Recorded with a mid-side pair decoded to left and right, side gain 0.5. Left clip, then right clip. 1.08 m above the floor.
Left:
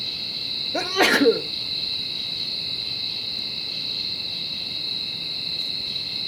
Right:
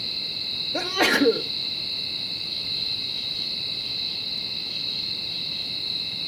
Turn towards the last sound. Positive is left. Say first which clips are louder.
# left 2 dB
turn(degrees=15)